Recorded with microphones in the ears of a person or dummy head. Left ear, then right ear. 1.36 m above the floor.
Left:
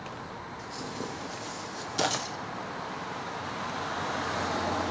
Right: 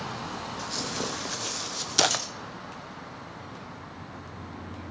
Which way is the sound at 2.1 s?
40° right (ahead or behind).